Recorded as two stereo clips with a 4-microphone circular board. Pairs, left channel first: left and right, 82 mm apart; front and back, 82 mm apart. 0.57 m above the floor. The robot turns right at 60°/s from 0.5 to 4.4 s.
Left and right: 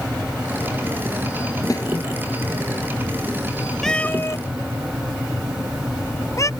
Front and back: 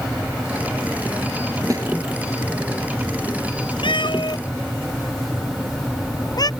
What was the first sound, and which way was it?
A snare drum, 135° left.